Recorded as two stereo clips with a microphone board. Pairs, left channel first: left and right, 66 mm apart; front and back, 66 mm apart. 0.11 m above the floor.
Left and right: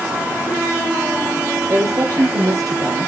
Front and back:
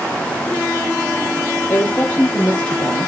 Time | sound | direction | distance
1.7 | a woman speaking | 60° right | 3.5 m